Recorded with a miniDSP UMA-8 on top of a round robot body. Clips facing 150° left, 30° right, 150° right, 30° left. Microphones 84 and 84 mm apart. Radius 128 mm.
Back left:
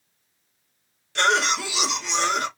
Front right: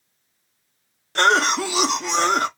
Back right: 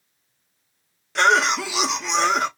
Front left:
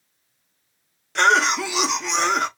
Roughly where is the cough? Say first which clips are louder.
Front right 4 dB, even; ahead right.